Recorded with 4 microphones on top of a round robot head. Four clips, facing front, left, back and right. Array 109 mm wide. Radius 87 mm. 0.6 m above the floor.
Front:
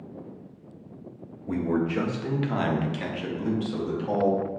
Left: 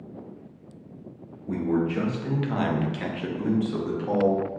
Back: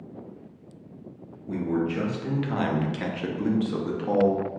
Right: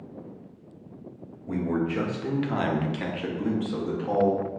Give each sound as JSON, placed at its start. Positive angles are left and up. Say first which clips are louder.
{"t": 1.5, "sound": "a man speaking", "louder": "left 2 dB, front 1 dB", "azimuth_deg": -20, "distance_m": 1.0}